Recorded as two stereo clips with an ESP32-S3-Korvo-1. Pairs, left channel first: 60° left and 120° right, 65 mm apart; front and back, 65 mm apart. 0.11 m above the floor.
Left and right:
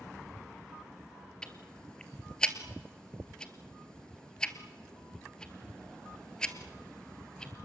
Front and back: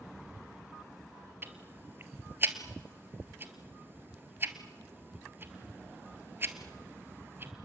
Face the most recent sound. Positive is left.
turn(degrees=135)